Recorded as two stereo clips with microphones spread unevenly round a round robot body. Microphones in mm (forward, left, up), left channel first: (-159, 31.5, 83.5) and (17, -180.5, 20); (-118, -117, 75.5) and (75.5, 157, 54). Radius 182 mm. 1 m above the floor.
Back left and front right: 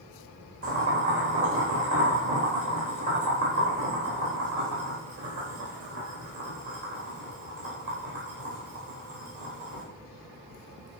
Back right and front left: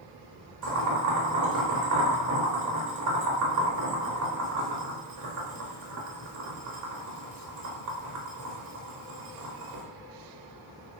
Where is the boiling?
10° left, 4.5 m.